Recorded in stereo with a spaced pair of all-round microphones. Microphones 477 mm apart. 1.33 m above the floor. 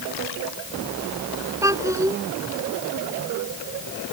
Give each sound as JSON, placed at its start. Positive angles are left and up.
{"t": 1.6, "sound": "a child speaking", "side_deg": -5}